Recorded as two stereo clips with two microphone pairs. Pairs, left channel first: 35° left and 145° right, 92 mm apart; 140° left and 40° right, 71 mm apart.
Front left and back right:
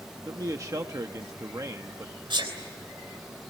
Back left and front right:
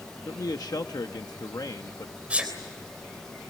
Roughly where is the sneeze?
Behind right.